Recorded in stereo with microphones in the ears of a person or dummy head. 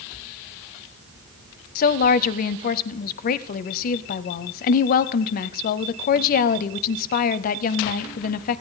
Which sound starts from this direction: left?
A woman speaking, at 1.8 s.